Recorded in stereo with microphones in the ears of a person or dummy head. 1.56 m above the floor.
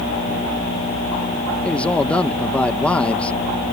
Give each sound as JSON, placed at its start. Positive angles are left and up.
{"t": 1.6, "sound": "a man speaking", "side_deg": 5}